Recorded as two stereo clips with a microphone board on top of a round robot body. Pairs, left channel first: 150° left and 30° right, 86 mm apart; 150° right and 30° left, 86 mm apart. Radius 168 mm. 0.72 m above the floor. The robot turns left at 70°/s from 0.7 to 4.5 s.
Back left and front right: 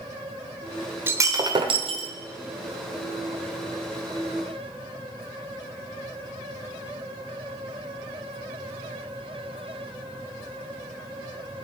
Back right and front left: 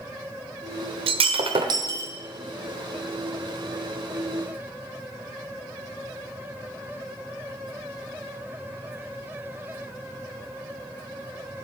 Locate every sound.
1.1 s breaking glass: 35° left, 0.9 m; by 2.1 s 35° right, 0.9 m